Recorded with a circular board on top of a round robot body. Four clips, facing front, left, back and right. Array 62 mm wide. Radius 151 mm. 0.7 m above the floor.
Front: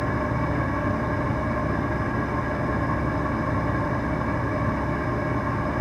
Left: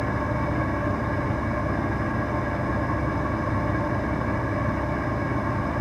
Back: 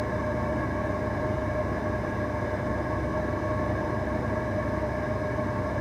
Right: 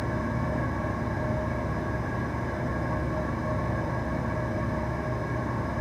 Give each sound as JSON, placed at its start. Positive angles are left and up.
{"t": 0.0, "sound": "an engine running", "azimuth_deg": 40, "distance_m": 2.0}